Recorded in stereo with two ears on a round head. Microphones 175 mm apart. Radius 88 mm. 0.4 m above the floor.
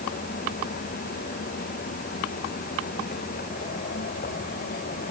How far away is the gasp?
No gasp in this recording.